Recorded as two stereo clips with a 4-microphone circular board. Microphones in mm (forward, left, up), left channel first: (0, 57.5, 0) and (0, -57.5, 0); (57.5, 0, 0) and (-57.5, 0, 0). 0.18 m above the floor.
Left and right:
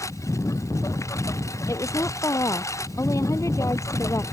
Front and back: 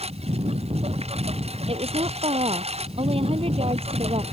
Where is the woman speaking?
150° left.